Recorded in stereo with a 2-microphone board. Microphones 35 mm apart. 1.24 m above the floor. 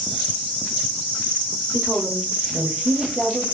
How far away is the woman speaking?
About 0.9 m.